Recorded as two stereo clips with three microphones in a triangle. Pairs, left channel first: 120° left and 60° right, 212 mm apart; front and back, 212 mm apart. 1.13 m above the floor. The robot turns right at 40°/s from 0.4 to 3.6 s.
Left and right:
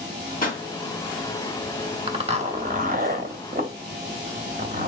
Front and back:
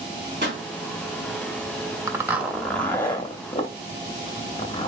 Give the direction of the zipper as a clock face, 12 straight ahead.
4 o'clock.